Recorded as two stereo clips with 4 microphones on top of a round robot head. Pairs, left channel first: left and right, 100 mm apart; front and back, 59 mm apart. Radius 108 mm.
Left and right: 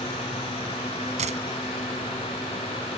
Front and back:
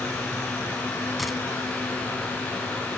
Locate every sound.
1.2 s a dropped coin: 90° right